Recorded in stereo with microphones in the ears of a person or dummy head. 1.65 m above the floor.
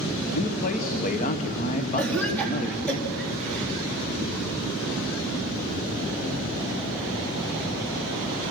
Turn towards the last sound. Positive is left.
turn(degrees=10)  # may be behind; listen again after turning